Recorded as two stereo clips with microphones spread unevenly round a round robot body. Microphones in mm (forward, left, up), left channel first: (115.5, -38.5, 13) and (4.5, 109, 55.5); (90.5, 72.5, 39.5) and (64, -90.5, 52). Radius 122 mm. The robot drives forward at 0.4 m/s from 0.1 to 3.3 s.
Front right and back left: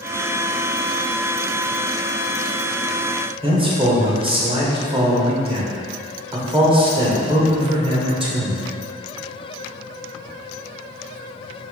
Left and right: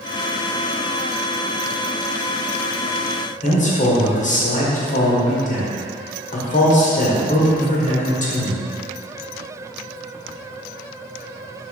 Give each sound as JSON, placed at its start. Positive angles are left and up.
{"t": 3.4, "sound": "a man speaking", "azimuth_deg": 60, "distance_m": 2.0}